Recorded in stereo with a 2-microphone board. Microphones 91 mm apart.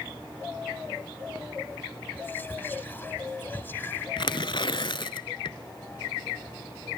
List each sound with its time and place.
2.1 s whispering: 20° left (ahead or behind), 1.3 m
4.2 s tearing paper: 60° left (ahead or behind), 1.0 m